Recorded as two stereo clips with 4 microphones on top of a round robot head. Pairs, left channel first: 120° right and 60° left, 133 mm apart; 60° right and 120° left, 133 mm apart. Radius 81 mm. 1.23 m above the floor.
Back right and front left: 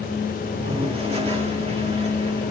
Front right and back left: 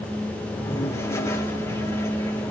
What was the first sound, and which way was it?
A toilet flushing, 10° left.